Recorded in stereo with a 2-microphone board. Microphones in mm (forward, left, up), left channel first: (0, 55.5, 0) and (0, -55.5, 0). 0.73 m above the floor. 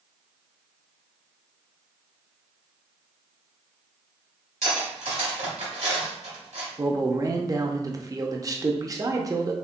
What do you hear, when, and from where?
4.6 s cutlery clinking: 85° right, 1.7 m
6.8 s a man speaking: 30° right (ahead or behind), 0.6 m